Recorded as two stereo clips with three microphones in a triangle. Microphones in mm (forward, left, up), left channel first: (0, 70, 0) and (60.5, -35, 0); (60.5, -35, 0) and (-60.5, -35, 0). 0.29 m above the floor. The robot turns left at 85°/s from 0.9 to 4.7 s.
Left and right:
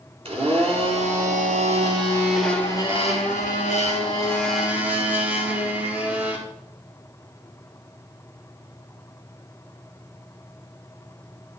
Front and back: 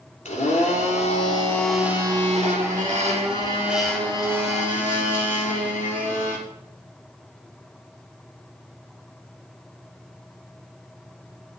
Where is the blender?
20° right, 3 m; by 6.4 s 15° left, 3 m.